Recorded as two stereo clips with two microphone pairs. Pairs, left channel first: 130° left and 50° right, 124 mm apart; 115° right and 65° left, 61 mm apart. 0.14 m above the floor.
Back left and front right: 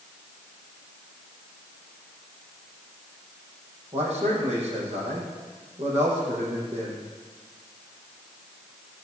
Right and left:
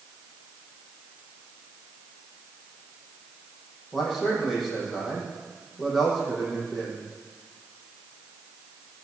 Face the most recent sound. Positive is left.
turn(degrees=-25)